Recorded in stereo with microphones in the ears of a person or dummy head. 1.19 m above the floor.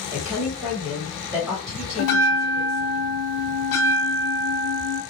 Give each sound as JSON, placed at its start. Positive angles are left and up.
{"t": 0.1, "sound": "a woman speaking", "side_deg": -5, "distance_m": 1.0}
{"t": 2.0, "sound": "a bell", "side_deg": 60, "distance_m": 1.1}